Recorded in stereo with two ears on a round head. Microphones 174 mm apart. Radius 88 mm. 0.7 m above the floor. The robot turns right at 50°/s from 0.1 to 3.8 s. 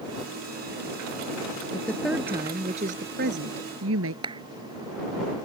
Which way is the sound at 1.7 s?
165° left.